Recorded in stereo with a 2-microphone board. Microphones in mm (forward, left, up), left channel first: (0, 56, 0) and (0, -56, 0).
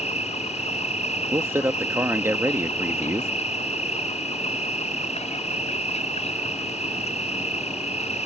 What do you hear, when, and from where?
0.0 s an insect: 85° left
1.3 s a man speaking: 20° right (ahead or behind)